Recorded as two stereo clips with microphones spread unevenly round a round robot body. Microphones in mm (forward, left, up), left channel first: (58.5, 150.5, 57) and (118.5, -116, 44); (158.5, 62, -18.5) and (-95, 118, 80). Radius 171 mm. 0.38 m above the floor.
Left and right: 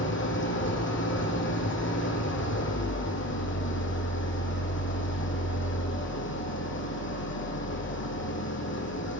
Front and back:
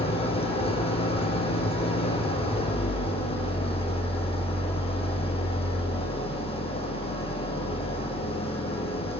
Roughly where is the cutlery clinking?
I don't hear cutlery clinking.